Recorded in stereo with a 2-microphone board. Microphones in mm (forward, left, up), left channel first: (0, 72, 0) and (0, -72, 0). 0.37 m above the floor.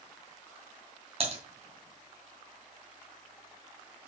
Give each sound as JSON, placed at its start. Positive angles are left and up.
{"t": 1.2, "sound": "typing on a keyboard", "side_deg": -45, "distance_m": 2.5}